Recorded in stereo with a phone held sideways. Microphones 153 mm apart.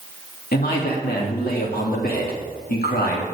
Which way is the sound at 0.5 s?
80° left.